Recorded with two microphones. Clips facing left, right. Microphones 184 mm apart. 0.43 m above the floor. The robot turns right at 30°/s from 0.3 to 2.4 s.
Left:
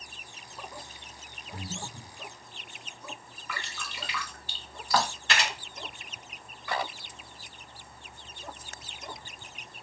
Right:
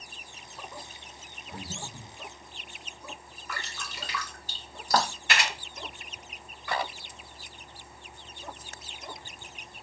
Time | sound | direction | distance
1.5 | breathing | 40° right (ahead or behind) | 0.9 m
3.5 | dripping | 45° right (ahead or behind) | 0.5 m
5.3 | a camera shutter | 10° right (ahead or behind) | 1.5 m